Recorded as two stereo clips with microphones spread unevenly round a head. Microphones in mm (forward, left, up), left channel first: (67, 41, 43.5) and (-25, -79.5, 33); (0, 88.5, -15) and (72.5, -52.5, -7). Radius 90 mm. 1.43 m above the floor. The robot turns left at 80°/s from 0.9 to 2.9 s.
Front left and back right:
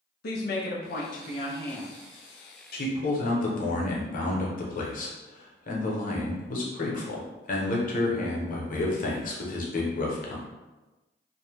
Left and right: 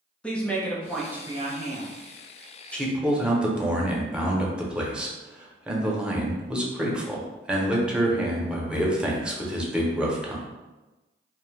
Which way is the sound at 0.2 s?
35° left.